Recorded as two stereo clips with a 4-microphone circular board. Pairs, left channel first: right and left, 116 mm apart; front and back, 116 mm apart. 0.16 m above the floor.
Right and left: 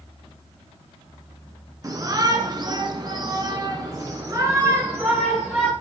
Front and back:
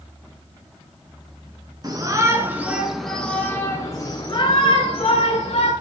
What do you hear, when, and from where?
1.8 s a shout: 140° left, 2.5 m; by 5.7 s 20° left, 3.5 m